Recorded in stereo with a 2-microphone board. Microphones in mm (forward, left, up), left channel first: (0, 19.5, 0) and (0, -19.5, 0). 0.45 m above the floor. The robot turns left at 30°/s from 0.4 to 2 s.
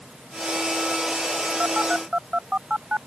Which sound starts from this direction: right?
A phone buzzing, at 1.6 s.